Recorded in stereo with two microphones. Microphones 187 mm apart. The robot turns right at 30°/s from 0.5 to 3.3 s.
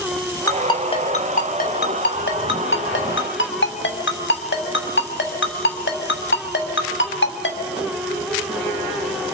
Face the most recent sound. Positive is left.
turn(degrees=75)  # may be behind; listen again after turning